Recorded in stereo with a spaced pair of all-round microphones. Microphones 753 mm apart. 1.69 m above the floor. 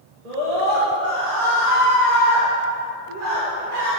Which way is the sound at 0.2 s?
60° right (ahead or behind).